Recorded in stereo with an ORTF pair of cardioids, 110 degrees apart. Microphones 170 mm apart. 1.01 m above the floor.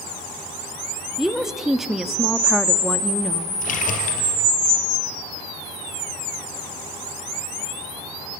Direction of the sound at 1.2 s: Straight ahead.